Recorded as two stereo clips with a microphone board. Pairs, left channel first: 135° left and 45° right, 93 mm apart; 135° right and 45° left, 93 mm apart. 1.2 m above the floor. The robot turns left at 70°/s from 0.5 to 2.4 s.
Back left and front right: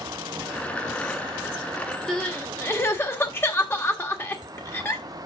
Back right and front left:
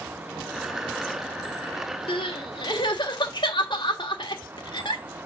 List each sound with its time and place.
2.1 s crying: 140° right, 1.5 m; by 5.0 s 165° right, 1.5 m